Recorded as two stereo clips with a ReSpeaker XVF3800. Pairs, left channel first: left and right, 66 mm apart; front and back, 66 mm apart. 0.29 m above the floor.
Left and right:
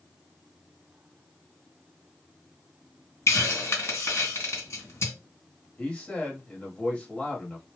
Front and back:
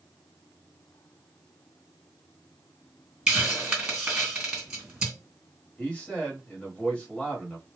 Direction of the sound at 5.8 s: 45° left.